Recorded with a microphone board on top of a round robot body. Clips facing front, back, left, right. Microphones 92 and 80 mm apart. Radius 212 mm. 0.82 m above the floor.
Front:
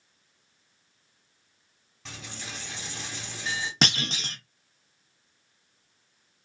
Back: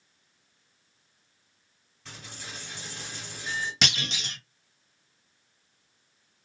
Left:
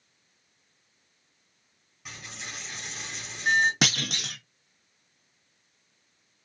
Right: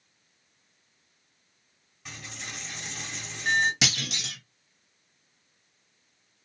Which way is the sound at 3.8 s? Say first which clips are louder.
Front 3 dB, left 3 dB; 50° left.